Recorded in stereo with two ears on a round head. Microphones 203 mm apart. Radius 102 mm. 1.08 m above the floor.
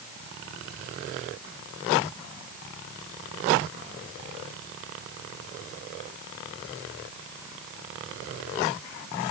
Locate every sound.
Only background noise.